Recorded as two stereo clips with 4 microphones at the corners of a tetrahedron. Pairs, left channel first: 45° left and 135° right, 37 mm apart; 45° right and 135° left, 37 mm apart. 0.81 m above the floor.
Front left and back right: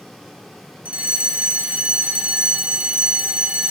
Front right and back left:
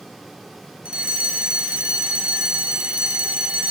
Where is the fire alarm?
175° right, 3 m.